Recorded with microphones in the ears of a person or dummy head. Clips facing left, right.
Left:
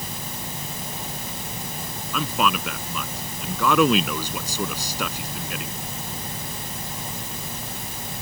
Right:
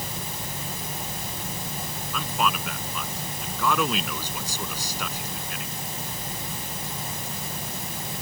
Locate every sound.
2.1 s a man speaking: 60° left (ahead or behind)